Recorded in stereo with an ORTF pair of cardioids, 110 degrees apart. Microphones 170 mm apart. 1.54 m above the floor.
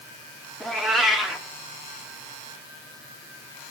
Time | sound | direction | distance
0.6 | a cat meowing | straight ahead | 2 m